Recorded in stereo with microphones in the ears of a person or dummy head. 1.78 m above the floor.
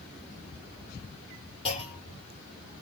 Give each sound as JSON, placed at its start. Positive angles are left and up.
{"t": 1.6, "sound": "a clunk", "side_deg": 30, "distance_m": 1.9}